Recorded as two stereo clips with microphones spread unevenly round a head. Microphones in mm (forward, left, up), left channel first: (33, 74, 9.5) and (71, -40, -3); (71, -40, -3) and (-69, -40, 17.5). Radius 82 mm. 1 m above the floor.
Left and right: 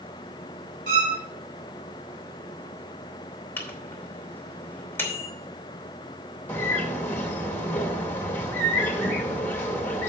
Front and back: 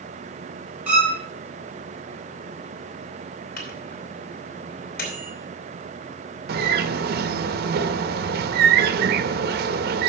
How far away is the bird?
About 0.6 m.